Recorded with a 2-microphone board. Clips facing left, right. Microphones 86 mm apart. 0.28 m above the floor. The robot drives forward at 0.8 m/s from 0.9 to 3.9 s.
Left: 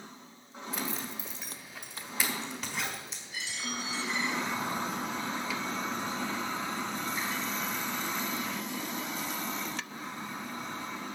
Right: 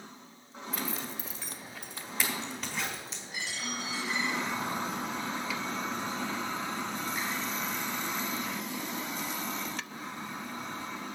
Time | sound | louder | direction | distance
0.7 | a zipper | even | centre (ahead or behind) | 1.5 m
3.3 | a dropped coin | even | 50° right (ahead or behind) | 5.5 m